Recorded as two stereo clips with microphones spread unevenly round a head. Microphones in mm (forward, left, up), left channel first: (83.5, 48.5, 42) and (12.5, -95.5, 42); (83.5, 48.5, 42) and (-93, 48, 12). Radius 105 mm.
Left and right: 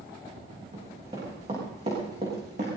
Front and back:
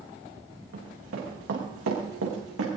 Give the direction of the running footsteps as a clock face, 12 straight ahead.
6 o'clock.